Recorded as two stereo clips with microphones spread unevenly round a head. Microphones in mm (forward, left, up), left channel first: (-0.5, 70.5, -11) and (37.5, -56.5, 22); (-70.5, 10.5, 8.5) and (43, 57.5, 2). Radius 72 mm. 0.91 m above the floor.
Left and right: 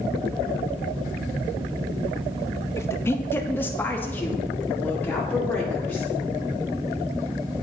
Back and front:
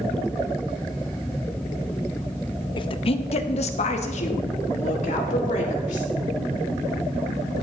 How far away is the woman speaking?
About 0.5 m.